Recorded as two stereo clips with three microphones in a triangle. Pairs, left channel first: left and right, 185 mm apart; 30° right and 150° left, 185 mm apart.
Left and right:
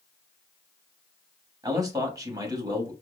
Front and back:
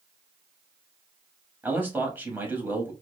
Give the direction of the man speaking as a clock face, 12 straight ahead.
5 o'clock.